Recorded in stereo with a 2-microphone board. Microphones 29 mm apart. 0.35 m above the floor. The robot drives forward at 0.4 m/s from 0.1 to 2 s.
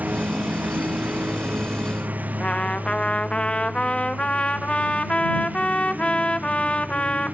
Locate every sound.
0.0 s a lawn mower: 60° right (ahead or behind); by 7.3 s 65° right (ahead or behind)
2.4 s a trumpet: 35° left (ahead or behind)